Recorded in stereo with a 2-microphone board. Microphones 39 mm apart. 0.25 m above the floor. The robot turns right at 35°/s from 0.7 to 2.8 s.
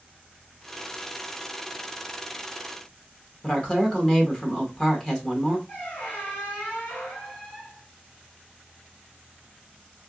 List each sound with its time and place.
3.4 s a woman speaking: 25° left (ahead or behind), 1.1 m
5.7 s a squeak: 55° left (ahead or behind), 2.5 m